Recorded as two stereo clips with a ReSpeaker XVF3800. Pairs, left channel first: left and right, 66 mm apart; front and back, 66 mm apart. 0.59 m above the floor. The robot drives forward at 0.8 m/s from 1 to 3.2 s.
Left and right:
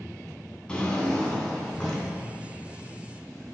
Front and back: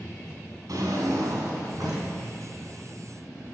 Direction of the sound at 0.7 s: 165° left.